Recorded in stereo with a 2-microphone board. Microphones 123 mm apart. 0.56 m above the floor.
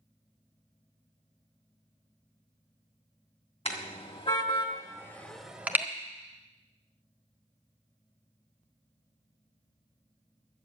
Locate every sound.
3.6 s a car horn: 60° left (ahead or behind), 2.5 m; by 5.8 s 20° right (ahead or behind), 1.5 m